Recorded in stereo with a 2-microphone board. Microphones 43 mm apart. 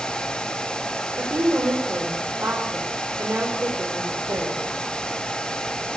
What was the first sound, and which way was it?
A woman speaking, 80° right.